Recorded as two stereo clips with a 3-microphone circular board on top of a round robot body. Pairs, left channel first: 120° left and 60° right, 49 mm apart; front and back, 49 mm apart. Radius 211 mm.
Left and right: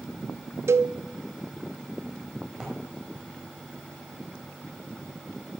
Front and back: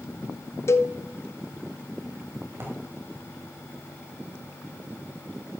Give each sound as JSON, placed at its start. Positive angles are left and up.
{"t": 0.7, "sound": "a cowbell", "azimuth_deg": -30, "distance_m": 0.6}
{"t": 2.5, "sound": "a drawer", "azimuth_deg": -135, "distance_m": 1.5}